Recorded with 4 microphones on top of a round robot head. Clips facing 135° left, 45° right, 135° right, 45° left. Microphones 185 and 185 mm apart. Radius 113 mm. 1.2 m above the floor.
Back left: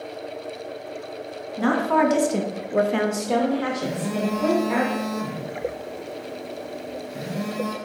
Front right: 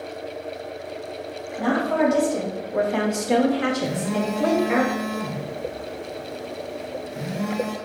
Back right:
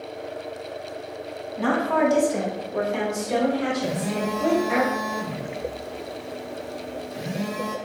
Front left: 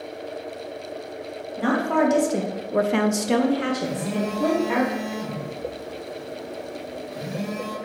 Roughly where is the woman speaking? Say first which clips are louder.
Back left 1 dB, front left 1 dB; behind left.